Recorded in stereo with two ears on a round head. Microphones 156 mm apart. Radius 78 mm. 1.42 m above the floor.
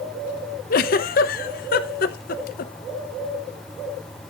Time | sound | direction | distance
0.7 | a giggle | 55° left (ahead or behind) | 0.7 m